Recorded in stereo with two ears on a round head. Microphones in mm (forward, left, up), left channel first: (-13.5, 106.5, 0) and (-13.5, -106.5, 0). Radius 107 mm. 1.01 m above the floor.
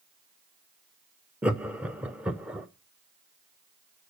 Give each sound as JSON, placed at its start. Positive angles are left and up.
{"t": 1.4, "sound": "laughter", "side_deg": -5, "distance_m": 0.6}